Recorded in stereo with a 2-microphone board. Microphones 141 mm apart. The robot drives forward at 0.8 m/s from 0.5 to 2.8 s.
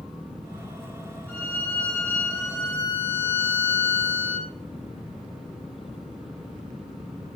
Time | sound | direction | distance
1.3 | a violin | 15° left (ahead or behind) | 5 m